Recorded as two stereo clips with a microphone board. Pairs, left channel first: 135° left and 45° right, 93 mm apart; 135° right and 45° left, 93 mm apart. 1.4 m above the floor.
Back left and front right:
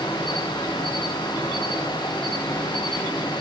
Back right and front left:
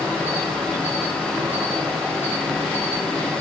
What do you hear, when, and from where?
0.0 s an insect: 110° left, 6 m